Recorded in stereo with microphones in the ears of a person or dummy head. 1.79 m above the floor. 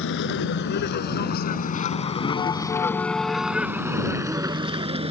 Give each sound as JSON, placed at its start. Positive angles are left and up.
{"t": 0.0, "sound": "a vehicle", "side_deg": 70}